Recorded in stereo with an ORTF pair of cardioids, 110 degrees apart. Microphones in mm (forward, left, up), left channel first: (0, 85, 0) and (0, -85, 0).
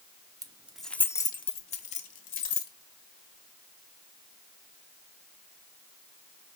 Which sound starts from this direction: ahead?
Keys jangling, at 0.4 s.